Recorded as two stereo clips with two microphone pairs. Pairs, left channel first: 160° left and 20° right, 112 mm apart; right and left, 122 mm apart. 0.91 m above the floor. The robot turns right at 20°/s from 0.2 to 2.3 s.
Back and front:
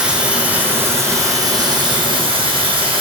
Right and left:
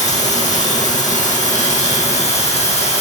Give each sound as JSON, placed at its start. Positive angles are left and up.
{"t": 0.0, "sound": "running water", "azimuth_deg": -105, "distance_m": 3.5}